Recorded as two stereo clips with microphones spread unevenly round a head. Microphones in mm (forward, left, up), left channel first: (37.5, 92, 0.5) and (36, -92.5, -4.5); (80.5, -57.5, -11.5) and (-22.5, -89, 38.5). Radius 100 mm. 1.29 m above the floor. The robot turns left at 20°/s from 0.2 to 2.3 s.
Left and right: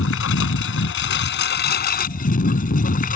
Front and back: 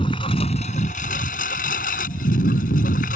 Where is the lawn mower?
90° left; by 3.2 s 50° left.